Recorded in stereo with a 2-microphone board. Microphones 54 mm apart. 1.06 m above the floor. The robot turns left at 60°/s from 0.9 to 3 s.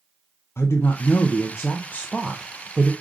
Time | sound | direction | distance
0.6 | a woman speaking | 100° left | 0.5 m